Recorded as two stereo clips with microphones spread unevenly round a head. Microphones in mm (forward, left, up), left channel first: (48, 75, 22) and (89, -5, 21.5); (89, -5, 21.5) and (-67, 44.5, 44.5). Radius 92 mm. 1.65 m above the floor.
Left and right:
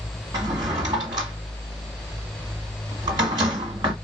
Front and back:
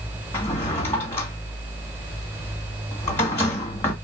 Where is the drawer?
100° right, 1.1 m.